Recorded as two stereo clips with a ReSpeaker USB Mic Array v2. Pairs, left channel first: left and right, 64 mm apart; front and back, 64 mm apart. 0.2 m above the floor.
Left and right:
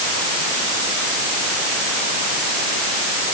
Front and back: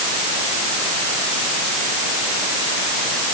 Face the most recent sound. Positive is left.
No sound to turn to.